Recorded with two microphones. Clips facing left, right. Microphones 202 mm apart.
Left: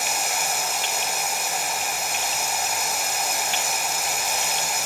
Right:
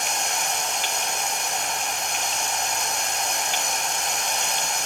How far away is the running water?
About 1.8 m.